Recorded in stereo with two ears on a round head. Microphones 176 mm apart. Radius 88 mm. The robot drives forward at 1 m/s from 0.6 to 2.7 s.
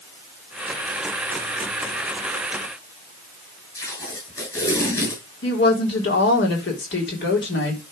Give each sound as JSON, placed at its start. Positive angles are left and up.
{"t": 3.8, "sound": "tape being pulled", "side_deg": 15, "distance_m": 7.0}
{"t": 5.4, "sound": "a woman speaking", "side_deg": 60, "distance_m": 3.5}